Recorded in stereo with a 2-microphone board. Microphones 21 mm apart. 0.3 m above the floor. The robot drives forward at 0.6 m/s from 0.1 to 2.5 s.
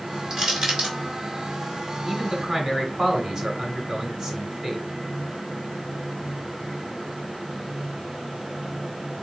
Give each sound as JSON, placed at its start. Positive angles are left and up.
{"t": 0.3, "sound": "crushing", "side_deg": -30, "distance_m": 1.9}
{"t": 2.0, "sound": "a man speaking", "side_deg": -25, "distance_m": 1.1}